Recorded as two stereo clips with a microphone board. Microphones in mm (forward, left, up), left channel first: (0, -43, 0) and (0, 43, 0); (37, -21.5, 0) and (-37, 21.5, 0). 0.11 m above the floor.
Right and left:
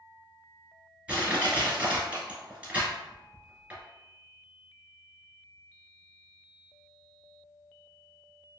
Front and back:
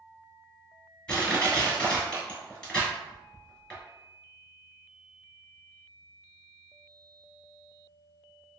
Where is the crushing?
35° left, 1.7 m.